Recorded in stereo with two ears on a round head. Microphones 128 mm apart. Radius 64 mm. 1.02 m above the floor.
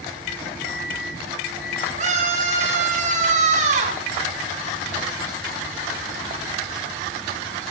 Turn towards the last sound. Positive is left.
turn(degrees=-50)  # may be behind; listen again after turning